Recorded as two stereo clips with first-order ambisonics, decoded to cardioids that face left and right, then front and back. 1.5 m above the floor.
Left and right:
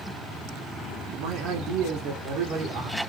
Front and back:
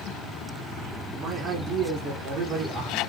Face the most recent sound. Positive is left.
turn(degrees=-110)